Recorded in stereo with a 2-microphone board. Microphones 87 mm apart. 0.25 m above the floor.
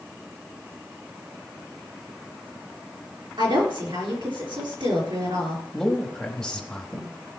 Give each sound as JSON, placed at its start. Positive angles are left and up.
{"t": 3.4, "sound": "a woman speaking", "side_deg": -65, "distance_m": 3.5}
{"t": 5.7, "sound": "a man speaking", "side_deg": 5, "distance_m": 1.2}